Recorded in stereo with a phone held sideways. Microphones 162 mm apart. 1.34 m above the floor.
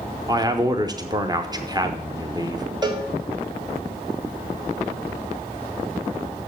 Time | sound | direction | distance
0.3 | a man speaking | 25° right (ahead or behind) | 0.7 m
2.8 | a cowbell | 25° right (ahead or behind) | 1.3 m